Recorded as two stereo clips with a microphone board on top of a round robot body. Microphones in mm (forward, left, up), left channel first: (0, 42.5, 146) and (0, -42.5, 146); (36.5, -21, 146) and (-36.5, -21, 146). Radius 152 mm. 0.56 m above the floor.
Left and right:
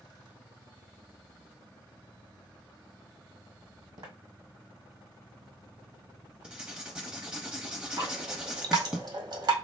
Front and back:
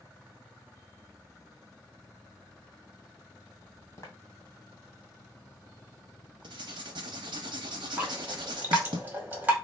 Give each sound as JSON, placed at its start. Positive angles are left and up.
{"t": 4.0, "sound": "footsteps", "azimuth_deg": -55, "distance_m": 1.8}
{"t": 6.4, "sound": "writing", "azimuth_deg": -170, "distance_m": 0.5}
{"t": 8.0, "sound": "dripping", "azimuth_deg": -110, "distance_m": 1.9}